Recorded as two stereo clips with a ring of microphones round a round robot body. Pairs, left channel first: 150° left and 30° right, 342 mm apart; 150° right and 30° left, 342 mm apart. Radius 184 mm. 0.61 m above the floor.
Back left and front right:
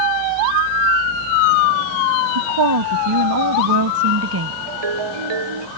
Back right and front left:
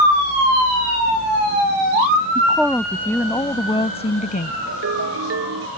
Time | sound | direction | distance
2.4 | a woman speaking | 60° right | ?
4.7 | a ringtone | 25° right | ?